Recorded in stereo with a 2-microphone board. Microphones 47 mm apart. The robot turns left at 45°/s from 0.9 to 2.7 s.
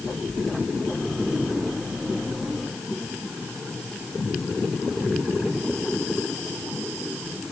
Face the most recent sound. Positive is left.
No sound to turn to.